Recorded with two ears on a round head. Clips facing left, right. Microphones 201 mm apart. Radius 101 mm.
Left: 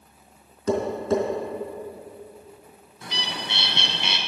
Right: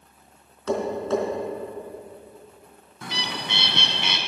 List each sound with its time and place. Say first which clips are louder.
0.7 s tapping: left 1 dB; 15° left (ahead or behind), 3 m
3.0 s a bird: right 1 dB; 60° right (ahead or behind), 1.0 m